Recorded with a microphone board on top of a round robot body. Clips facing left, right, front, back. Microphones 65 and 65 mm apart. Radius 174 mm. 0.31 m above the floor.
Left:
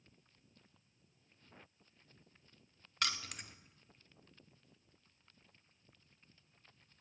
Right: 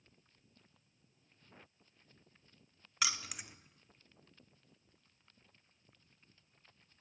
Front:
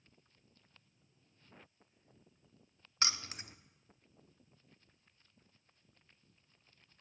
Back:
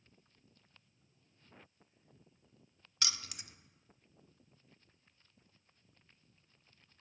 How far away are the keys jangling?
About 0.6 m.